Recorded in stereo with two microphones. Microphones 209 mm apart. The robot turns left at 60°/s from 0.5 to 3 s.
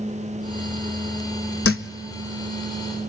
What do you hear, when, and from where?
1.6 s a thud: 85° left, 0.9 m; by 1.9 s 70° left (ahead or behind), 0.9 m